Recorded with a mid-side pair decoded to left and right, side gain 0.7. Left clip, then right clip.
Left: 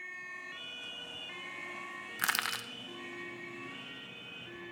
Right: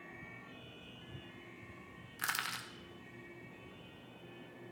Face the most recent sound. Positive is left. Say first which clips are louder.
# left 5 dB
turn(degrees=30)